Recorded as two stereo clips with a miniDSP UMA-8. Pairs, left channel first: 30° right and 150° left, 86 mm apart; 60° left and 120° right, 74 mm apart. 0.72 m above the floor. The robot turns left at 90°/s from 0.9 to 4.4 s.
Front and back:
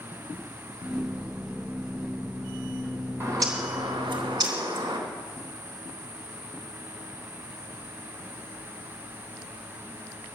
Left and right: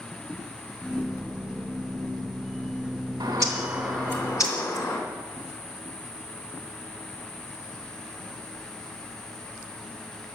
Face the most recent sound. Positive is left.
turn(degrees=105)